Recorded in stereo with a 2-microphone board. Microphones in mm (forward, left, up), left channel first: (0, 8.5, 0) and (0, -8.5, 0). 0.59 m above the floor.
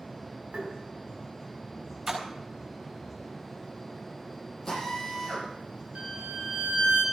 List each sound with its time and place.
0.5 s tapping: 75° right (ahead or behind), 4 m
2.1 s a splash: 20° right (ahead or behind), 4.5 m
4.7 s a drill: 10° left (ahead or behind), 9.5 m
6.0 s a violin: 80° right, 4 m